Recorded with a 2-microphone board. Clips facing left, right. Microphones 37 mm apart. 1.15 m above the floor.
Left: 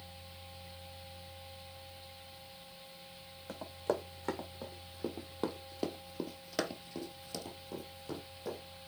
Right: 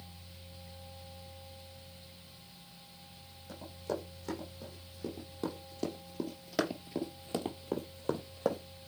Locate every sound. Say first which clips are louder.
3.5 s running footsteps: left 3 dB; 50° left (ahead or behind), 4.5 m; by 8.6 s 65° right (ahead or behind), 2.5 m